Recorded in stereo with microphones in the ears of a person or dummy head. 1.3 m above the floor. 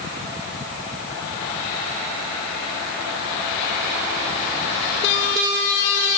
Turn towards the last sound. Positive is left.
No sound to turn to.